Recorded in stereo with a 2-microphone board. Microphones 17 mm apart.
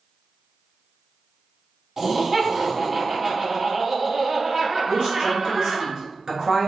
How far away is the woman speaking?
About 1.7 m.